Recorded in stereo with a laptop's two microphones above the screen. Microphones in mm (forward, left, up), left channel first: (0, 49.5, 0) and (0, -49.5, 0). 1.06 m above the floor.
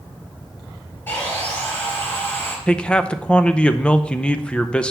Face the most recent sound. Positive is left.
turn(degrees=10)  # may be behind; listen again after turning